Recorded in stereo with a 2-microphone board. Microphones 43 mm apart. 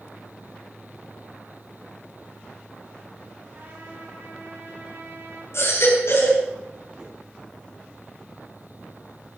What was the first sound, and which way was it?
A trumpet, 60° right (ahead or behind).